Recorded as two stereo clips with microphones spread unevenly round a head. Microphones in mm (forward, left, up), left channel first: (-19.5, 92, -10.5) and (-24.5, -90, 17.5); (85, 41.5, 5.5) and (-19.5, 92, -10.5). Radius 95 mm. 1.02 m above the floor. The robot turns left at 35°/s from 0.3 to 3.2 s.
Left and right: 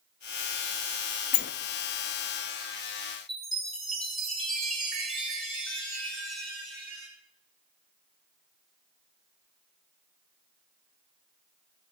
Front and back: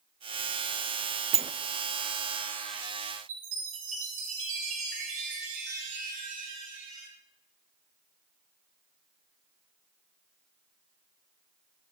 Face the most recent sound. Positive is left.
turn(degrees=180)